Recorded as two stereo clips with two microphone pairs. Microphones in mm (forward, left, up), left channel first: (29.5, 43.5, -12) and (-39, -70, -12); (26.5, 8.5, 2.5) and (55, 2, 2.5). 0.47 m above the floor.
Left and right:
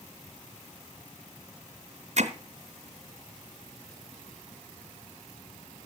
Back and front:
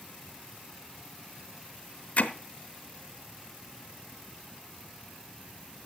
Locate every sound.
2.2 s hammering: 150° right, 1.4 m